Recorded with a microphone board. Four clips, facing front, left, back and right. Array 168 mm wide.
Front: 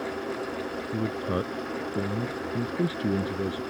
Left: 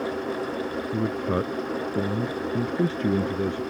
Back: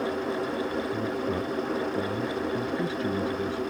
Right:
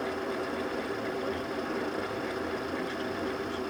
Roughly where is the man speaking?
Ahead left.